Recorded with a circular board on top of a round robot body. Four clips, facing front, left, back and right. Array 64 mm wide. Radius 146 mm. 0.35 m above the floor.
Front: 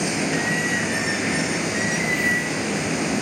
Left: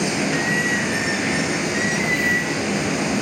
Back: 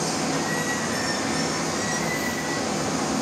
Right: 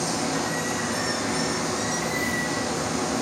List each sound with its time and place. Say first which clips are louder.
0.0 s running water: left 5 dB, front 2 dB; 55° left, 4.5 m